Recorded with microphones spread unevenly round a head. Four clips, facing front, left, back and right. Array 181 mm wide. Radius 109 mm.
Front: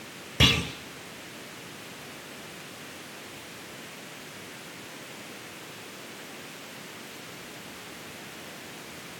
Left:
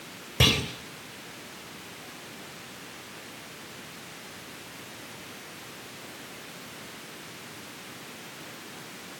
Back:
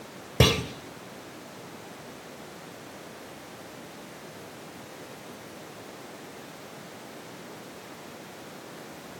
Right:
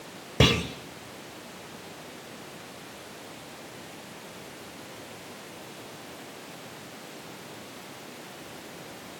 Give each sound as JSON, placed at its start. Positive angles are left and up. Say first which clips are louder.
{"t": 0.4, "sound": "a clunk", "louder": "right 3 dB, back 3 dB", "azimuth_deg": -145, "distance_m": 2.5}